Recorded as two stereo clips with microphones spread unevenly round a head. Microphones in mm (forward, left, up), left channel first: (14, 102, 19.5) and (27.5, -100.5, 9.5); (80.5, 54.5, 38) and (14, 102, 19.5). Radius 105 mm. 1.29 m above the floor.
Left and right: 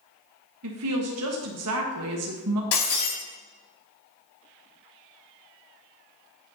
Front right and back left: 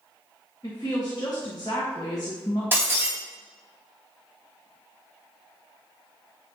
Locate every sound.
0.6 s a woman speaking: 105° right, 1.2 m
2.7 s breaking glass: 75° left, 4 m